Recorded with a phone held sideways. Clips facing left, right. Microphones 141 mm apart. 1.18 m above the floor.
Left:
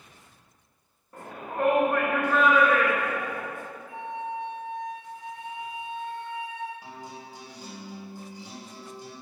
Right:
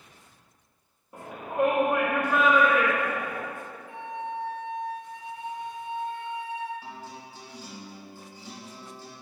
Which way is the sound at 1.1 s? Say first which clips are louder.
Right 3 dB; 15° right (ahead or behind).